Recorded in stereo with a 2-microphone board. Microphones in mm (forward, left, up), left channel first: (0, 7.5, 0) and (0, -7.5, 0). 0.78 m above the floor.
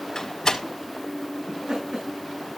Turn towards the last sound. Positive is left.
turn(degrees=-80)